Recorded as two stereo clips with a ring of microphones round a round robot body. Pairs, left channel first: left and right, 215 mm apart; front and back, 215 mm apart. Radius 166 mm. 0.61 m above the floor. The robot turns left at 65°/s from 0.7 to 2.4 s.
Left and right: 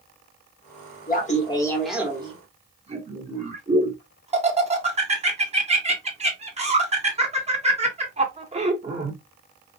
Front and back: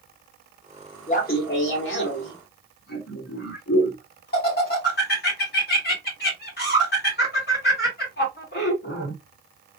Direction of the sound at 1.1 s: 50° left.